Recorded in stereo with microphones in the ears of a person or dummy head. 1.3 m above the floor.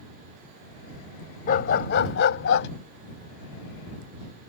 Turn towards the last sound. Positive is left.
turn(degrees=70)  # may be behind; listen again after turning